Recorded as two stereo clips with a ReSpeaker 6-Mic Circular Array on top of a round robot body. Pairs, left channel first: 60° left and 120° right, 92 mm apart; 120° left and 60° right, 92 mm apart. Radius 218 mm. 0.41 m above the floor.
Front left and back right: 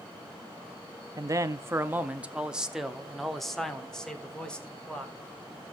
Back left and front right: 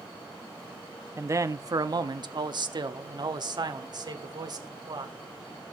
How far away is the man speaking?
About 0.8 m.